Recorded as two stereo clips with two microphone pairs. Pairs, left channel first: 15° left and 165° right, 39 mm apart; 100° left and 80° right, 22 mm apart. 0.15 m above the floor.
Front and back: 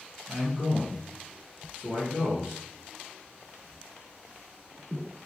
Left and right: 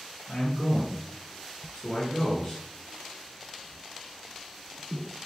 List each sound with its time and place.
0.3 s a man speaking: 165° left, 2.0 m